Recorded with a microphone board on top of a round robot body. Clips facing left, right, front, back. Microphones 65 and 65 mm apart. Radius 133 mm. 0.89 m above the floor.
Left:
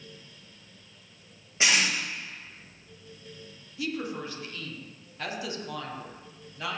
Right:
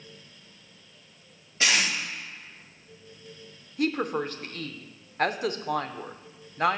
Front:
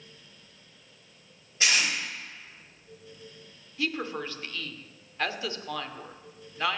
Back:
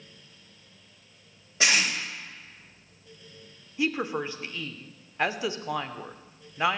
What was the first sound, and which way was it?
Tape being pulled, 160° left.